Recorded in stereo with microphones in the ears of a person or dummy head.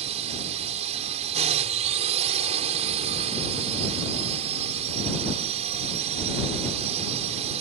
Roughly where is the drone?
Right.